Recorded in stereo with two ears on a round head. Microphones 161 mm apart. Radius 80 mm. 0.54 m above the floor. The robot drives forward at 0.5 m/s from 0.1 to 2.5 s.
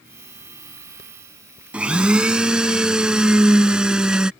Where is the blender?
5° right (ahead or behind).